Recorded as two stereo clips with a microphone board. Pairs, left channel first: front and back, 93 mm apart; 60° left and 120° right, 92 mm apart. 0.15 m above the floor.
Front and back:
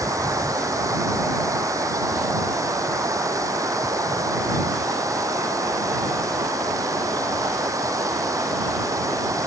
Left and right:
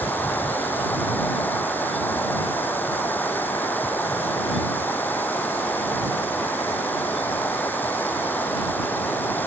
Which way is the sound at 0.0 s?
130° left.